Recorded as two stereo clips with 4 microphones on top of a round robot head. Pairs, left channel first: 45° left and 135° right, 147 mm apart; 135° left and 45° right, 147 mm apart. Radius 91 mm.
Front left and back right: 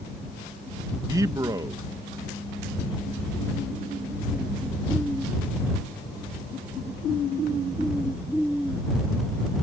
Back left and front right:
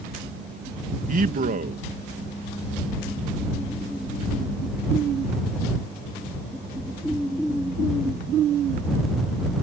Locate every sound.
1.1 s a man speaking: 70° right